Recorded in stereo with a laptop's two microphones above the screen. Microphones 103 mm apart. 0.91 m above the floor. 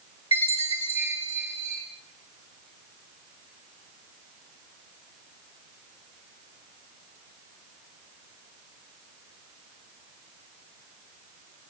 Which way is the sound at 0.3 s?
75° left (ahead or behind).